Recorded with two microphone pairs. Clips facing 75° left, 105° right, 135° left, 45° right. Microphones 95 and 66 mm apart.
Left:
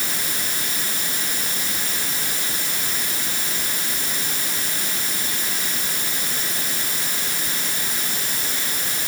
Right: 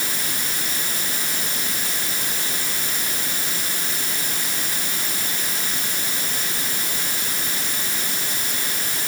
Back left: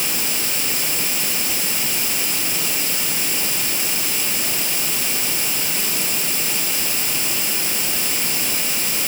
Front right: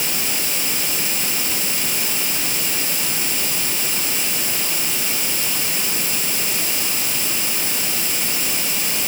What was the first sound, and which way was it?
Only background noise.